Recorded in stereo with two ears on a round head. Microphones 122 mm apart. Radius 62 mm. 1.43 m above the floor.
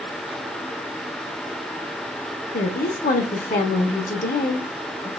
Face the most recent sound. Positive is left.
turn(degrees=60)  # may be behind; listen again after turning